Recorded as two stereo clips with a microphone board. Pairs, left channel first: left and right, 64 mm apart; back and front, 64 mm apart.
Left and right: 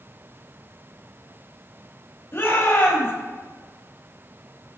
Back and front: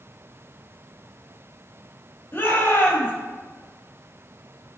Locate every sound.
2.3 s a shout: 135° left, 3 m